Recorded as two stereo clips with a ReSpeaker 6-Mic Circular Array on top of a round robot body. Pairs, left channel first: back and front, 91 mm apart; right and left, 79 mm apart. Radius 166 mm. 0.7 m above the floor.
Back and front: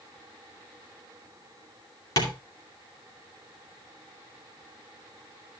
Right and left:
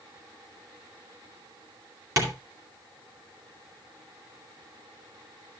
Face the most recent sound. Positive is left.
turn(degrees=135)